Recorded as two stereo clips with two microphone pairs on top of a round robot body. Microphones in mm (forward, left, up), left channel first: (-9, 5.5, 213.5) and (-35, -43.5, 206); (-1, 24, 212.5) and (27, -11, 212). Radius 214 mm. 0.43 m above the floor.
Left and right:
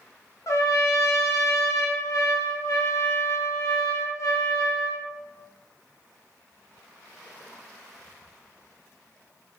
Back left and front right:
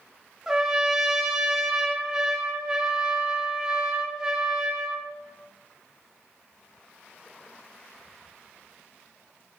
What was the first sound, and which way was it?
A trumpet, 25° left.